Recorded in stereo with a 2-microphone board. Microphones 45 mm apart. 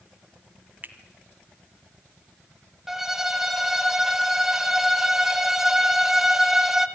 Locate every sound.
0.8 s a finger snap: 40° right (ahead or behind), 1.6 m
2.9 s a violin: 10° right (ahead or behind), 1.0 m